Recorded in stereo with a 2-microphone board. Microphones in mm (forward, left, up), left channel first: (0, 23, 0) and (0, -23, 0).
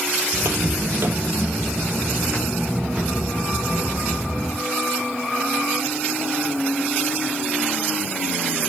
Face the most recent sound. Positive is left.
turn(degrees=-15)  # may be behind; listen again after turning